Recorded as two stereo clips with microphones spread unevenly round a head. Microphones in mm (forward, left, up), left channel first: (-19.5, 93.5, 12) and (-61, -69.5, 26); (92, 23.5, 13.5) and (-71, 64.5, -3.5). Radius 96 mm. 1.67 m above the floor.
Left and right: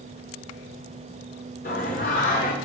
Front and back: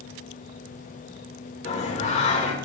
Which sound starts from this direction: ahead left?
Singing, at 1.6 s.